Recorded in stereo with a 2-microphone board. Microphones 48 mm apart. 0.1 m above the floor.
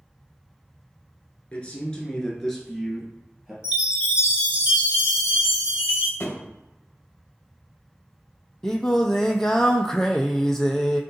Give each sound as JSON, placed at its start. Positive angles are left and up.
{"t": 1.5, "sound": "a man speaking", "side_deg": 25, "distance_m": 1.1}
{"t": 3.6, "sound": "a chime", "side_deg": -25, "distance_m": 1.7}
{"t": 6.2, "sound": "a thud", "side_deg": 45, "distance_m": 1.5}
{"t": 8.6, "sound": "singing", "side_deg": 10, "distance_m": 0.5}